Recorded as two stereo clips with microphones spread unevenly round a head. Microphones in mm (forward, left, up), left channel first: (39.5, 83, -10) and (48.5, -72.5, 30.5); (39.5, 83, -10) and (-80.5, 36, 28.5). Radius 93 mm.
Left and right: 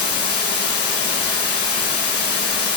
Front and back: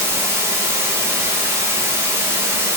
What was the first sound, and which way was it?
Running water, 130° left.